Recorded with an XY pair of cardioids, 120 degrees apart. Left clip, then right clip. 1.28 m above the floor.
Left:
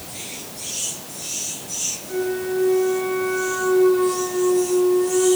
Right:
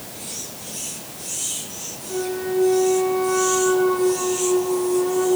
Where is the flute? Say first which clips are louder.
Right 1 dB; 5° left, 4.5 m.